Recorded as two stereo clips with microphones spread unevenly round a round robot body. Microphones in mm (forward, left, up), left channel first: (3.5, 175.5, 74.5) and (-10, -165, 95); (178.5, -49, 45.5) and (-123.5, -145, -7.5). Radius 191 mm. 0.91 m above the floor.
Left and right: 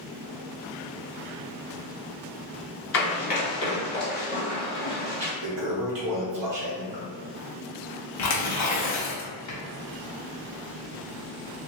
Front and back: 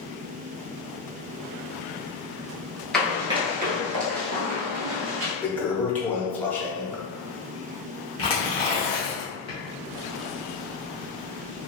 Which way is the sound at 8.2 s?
70° left.